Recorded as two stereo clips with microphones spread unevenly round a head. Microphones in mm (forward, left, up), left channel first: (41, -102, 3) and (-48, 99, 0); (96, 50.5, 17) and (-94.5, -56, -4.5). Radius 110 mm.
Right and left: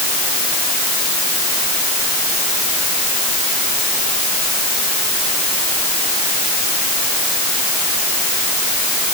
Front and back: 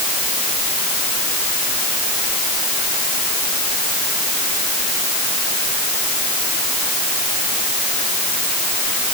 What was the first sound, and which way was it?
Only background noise.